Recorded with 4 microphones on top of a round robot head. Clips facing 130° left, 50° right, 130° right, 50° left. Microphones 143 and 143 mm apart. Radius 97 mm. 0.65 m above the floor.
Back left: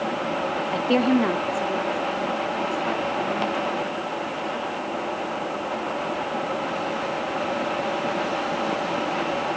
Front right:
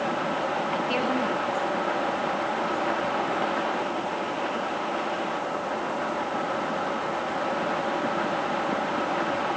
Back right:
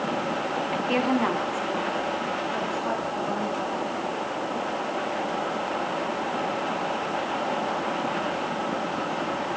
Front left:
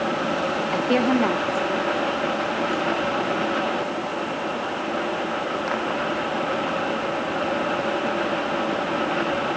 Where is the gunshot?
No gunshot in this recording.